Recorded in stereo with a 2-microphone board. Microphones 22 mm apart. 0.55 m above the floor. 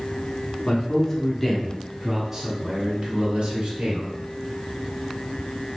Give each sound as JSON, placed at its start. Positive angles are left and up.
{"t": 0.7, "sound": "a man speaking", "side_deg": 30, "distance_m": 1.3}